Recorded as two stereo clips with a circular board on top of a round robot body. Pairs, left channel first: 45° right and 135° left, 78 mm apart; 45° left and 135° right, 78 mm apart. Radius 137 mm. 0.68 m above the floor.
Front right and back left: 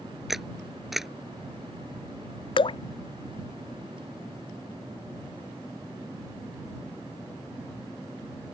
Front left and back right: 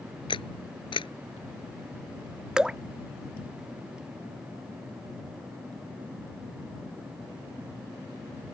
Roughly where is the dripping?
Ahead right.